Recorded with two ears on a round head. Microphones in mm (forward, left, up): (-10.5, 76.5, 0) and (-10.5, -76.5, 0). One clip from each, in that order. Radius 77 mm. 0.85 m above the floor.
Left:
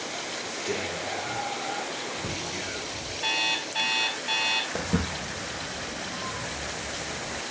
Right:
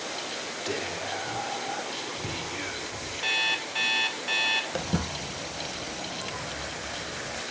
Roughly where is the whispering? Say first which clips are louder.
Left 1 dB; right.